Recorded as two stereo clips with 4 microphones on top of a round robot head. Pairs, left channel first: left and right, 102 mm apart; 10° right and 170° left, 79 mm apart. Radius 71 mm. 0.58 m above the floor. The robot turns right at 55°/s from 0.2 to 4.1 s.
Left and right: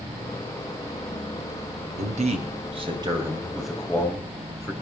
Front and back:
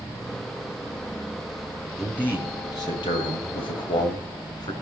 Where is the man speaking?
95° right, 3 m; by 4.7 s 20° left, 3 m.